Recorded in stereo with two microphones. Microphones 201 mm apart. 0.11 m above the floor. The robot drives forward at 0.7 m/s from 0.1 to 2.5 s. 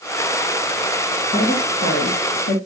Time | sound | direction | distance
1.3 | a woman speaking | 55° left (ahead or behind) | 3 m